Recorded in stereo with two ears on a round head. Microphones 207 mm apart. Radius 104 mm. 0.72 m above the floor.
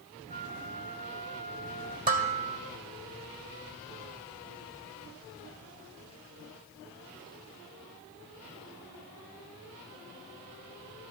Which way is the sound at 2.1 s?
35° right (ahead or behind).